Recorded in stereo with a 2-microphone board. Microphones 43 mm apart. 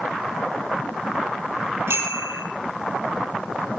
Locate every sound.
1.9 s a bicycle bell: 75° right (ahead or behind), 6 m